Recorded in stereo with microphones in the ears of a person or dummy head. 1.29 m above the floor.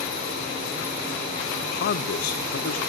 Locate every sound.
1.6 s a man speaking: 50° left (ahead or behind), 0.5 m; by 2.8 s 65° left (ahead or behind), 1.3 m